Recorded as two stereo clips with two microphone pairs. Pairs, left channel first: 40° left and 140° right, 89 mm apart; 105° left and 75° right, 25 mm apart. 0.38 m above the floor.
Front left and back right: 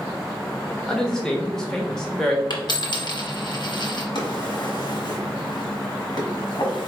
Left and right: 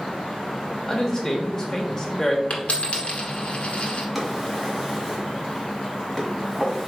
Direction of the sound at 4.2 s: 5° left.